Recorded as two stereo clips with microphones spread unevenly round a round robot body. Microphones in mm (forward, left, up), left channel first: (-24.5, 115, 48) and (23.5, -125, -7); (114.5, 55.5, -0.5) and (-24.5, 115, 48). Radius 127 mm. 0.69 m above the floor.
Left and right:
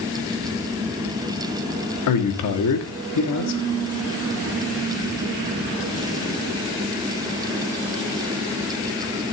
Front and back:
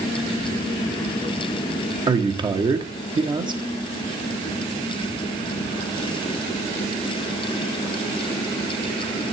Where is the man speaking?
90° left, 1.5 m.